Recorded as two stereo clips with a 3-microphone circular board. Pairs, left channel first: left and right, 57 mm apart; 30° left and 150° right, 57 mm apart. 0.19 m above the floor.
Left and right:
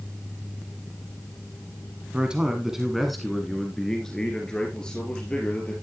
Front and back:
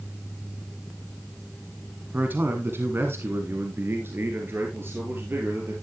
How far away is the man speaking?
About 1.4 m.